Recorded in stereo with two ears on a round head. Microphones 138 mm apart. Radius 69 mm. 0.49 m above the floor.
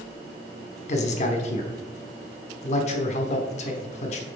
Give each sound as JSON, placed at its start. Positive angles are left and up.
{"t": 0.9, "sound": "a man speaking", "side_deg": 45, "distance_m": 1.0}